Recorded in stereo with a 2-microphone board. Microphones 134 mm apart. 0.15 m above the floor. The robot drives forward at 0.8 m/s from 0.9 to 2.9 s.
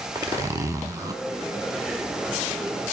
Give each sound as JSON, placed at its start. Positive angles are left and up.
{"t": 0.1, "sound": "a zipper", "side_deg": -20, "distance_m": 1.3}